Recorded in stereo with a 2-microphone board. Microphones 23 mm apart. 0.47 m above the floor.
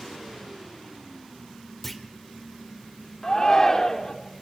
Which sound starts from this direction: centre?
A clunk, at 1.8 s.